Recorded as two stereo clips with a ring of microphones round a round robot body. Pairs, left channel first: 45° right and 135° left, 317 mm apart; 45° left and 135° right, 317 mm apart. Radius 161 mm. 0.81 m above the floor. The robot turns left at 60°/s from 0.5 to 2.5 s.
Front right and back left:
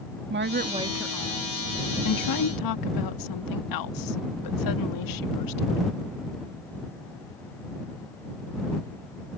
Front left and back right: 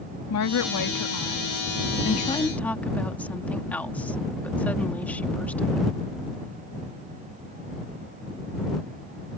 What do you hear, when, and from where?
0.3 s a woman speaking: 80° left; by 5.8 s 40° right